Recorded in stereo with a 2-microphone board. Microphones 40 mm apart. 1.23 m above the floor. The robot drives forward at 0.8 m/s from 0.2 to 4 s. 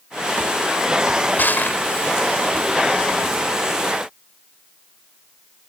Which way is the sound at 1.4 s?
55° left (ahead or behind).